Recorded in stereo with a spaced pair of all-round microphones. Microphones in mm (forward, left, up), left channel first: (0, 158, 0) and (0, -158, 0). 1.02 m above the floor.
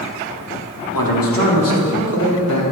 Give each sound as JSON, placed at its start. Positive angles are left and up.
{"t": 0.9, "sound": "a man speaking", "side_deg": 80, "distance_m": 2.0}